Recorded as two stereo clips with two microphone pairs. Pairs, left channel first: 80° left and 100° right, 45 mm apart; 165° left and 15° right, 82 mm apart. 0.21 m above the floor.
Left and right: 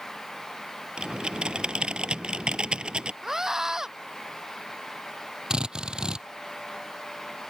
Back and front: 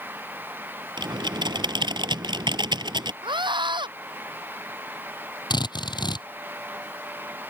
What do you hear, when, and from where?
1.0 s typing on a keyboard: 30° right
3.2 s a scream: 20° right
5.5 s a drill: 175° right